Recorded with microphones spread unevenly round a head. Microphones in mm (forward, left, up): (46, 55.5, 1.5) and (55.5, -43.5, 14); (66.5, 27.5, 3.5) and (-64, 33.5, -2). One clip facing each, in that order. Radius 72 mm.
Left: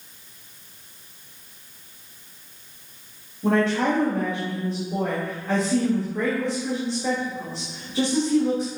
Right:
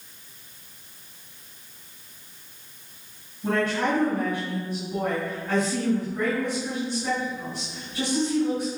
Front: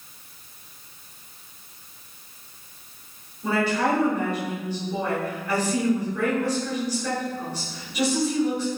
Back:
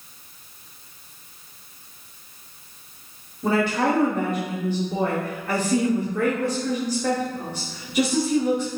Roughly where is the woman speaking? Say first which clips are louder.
Left 4 dB, back 2 dB; behind left.